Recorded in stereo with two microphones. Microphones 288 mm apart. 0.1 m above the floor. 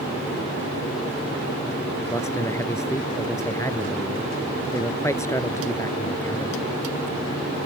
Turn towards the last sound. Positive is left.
turn(degrees=10)  # may be behind; listen again after turning